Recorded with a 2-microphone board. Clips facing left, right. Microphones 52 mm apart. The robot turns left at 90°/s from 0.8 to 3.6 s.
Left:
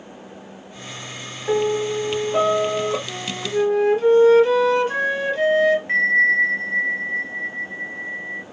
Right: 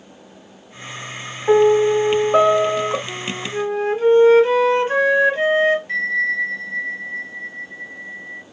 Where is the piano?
30° right, 1.3 m; by 3.0 s 165° right, 1.3 m.